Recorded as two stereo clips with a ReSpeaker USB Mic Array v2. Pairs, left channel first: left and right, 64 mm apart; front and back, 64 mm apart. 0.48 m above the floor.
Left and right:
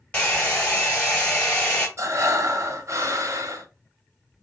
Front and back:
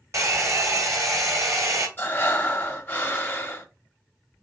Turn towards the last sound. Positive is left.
turn(degrees=-55)